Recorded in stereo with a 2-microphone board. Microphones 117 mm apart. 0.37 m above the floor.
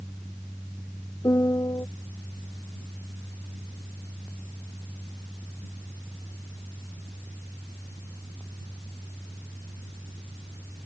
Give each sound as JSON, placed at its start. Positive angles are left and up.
{"t": 1.2, "sound": "a piano", "side_deg": 30}